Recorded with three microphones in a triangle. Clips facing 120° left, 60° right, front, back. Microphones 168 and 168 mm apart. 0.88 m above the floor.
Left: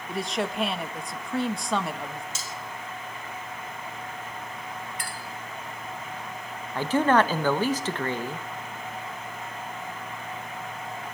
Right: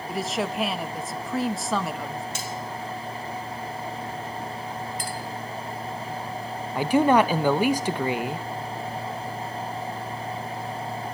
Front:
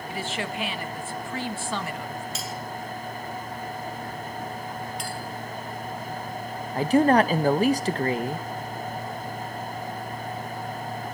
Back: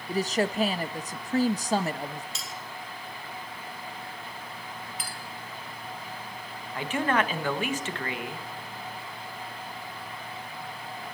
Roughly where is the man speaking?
Ahead.